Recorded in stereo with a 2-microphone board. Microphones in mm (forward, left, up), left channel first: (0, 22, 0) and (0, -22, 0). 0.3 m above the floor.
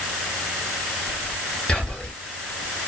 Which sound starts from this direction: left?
Whispering, at 1.7 s.